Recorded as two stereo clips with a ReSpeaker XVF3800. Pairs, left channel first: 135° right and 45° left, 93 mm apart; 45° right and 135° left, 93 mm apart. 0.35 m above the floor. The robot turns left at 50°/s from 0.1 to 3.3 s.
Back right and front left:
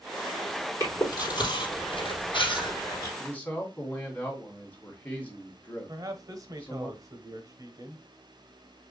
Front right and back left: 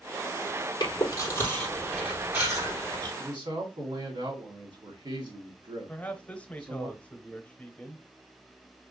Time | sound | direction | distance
0.8 | chewing | 80° right | 3.5 m
3.2 | a man speaking | 160° left | 2.5 m
5.9 | a man speaking | 25° left | 1.1 m